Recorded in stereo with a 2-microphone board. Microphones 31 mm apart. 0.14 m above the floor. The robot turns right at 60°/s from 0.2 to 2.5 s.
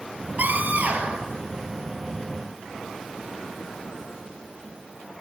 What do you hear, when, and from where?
0.4 s a scream: 90° right, 3.5 m; by 1.3 s 35° right, 3.5 m